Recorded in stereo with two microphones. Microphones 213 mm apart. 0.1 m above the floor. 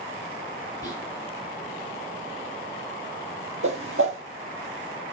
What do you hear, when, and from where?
0.8 s whispering: 20° left (ahead or behind), 1.5 m
3.6 s a whoosh: 75° right (ahead or behind), 0.6 m